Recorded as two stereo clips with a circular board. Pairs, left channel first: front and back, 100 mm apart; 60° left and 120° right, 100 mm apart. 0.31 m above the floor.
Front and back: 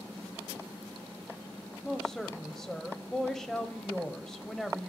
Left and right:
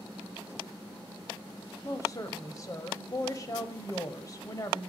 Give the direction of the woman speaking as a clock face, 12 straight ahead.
9 o'clock.